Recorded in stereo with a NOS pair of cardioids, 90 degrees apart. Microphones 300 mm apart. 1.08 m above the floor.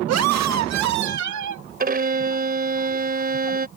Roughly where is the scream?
Ahead right.